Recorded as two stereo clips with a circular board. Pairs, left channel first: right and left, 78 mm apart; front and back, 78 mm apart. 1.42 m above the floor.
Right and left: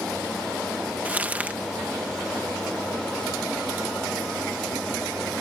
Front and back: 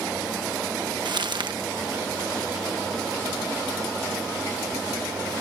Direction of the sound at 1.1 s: 160° left.